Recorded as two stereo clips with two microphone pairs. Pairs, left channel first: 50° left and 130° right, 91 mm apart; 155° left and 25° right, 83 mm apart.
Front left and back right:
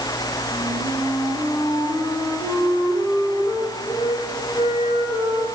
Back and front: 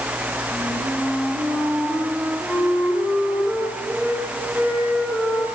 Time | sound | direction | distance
0.5 | a flute | 100° right | 9 m